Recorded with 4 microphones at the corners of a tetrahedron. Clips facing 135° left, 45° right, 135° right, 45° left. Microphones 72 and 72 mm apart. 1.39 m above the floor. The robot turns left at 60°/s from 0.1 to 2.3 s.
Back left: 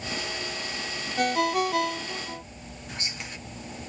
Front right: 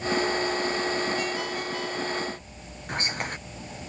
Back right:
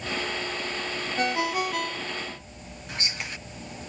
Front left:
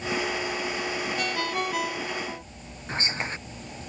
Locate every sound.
1.2 s a ringtone: 170° left; by 2.4 s 100° left
2.9 s whispering: 10° right